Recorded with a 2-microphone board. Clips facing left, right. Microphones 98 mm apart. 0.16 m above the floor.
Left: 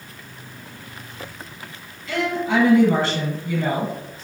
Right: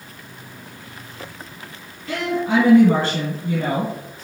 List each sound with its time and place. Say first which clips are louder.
2.1 s a woman speaking: right 1 dB; 50° right (ahead or behind), 2.0 m